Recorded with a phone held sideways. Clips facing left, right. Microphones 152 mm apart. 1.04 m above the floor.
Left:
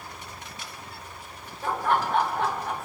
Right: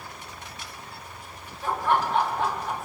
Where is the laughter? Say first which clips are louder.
Right 1 dB; 45° left (ahead or behind), 2.5 m; by 2.9 s 60° left (ahead or behind), 2.5 m.